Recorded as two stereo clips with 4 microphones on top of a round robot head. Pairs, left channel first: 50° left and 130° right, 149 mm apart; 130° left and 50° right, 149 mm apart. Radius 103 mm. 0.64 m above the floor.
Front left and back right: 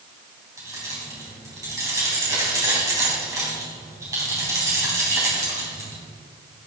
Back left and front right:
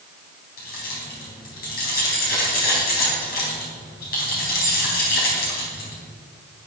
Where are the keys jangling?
160° left, 4 m.